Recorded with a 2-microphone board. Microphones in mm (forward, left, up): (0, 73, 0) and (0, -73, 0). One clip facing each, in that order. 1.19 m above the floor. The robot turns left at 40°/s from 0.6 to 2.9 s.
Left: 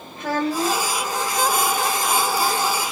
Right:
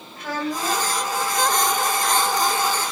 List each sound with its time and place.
0.2 s a child speaking: 25° left (ahead or behind), 1.7 m; by 1.0 s 40° left (ahead or behind), 1.7 m